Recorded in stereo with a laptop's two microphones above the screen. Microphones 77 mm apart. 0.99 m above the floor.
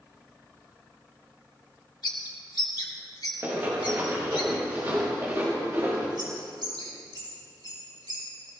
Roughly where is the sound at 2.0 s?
Left.